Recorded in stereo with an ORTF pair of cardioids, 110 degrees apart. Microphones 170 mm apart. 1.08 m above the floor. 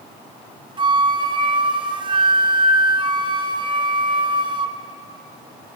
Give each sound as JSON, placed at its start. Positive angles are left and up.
{"t": 0.8, "sound": "a flute", "azimuth_deg": -30, "distance_m": 1.1}